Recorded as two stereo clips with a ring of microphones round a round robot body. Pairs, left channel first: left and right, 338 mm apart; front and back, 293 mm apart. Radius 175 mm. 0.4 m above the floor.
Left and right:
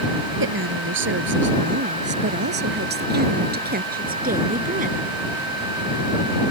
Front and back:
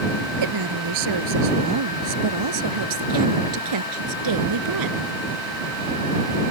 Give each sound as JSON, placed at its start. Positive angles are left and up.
{"t": 0.4, "sound": "a woman speaking", "azimuth_deg": -145}